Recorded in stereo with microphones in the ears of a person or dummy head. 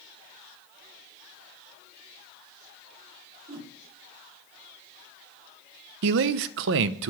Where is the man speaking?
65° right (ahead or behind), 0.5 m.